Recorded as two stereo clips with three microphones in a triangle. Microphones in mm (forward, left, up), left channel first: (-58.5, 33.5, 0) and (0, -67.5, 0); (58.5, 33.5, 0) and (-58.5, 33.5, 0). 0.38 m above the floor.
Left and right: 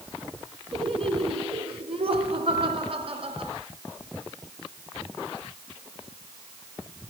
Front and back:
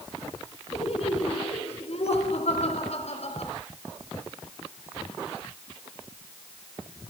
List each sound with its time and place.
0.7 s laughter: 25° right, 4 m